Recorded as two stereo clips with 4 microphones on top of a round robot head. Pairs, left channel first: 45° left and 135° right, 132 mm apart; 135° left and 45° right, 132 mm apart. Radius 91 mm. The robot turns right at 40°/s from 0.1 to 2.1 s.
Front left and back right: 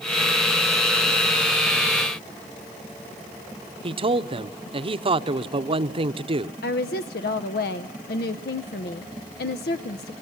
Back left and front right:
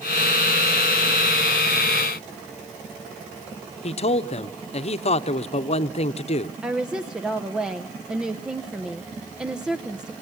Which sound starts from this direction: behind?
A man speaking, at 3.8 s.